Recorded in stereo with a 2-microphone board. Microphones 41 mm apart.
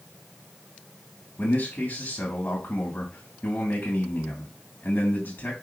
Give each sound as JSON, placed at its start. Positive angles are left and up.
{"t": 1.4, "sound": "a man speaking", "side_deg": 50, "distance_m": 3.5}